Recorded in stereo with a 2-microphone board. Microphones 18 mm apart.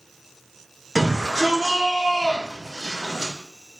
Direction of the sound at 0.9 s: 60° left (ahead or behind).